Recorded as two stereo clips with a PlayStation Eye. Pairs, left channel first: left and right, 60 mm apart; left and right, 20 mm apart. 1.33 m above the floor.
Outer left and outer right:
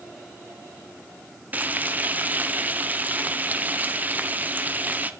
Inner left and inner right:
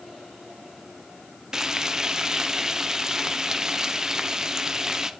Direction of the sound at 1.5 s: 30° right (ahead or behind).